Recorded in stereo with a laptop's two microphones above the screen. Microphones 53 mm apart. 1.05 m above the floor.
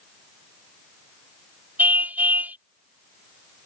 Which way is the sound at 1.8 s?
30° right (ahead or behind).